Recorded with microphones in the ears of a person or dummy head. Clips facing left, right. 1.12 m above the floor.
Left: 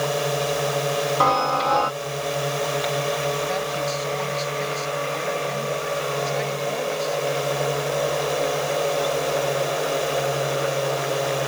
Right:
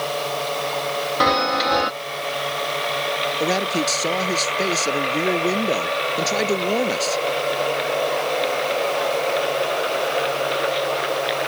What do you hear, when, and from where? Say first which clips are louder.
0.0 s a drone: left 2 dB; 25° left (ahead or behind)
1.2 s a chime: right 4 dB; 25° right (ahead or behind)
3.4 s a man speaking: right 4 dB; 65° right (ahead or behind)